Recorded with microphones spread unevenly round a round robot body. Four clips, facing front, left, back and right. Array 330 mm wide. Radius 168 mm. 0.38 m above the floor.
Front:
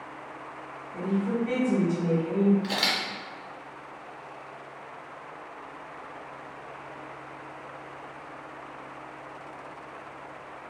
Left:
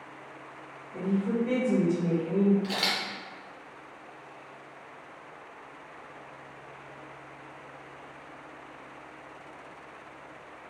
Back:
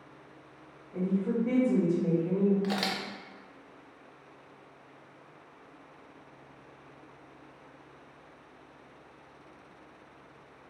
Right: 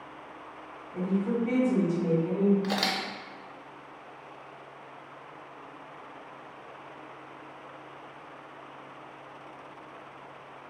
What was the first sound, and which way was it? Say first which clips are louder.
A woman speaking: even, front 2 dB; straight behind.